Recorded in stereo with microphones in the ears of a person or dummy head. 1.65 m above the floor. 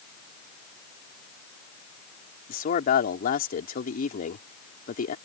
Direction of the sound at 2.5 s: 50° left (ahead or behind).